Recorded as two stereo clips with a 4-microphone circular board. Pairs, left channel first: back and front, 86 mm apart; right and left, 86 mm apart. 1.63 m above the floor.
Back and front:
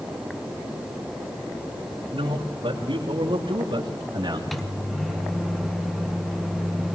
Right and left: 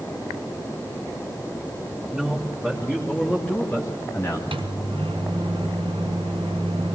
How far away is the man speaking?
About 4 m.